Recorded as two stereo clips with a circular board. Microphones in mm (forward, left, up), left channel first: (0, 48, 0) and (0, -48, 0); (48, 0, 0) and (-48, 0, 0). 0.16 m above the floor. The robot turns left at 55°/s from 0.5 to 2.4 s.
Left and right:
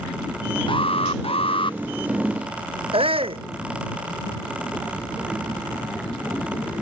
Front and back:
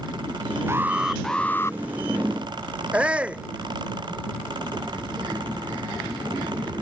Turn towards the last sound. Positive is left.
turn(degrees=-105)